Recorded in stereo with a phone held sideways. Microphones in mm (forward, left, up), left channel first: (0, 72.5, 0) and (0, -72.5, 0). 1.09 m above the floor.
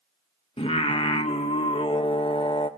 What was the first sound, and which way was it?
Singing, 40° left (ahead or behind).